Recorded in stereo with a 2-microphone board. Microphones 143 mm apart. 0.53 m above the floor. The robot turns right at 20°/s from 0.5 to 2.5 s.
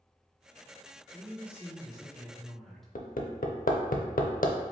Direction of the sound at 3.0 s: 85° left.